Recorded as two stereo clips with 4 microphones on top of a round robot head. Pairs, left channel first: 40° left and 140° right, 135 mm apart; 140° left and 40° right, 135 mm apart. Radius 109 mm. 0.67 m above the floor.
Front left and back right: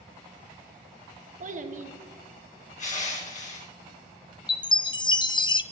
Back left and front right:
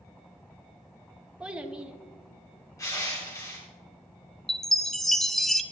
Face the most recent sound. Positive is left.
turn(degrees=55)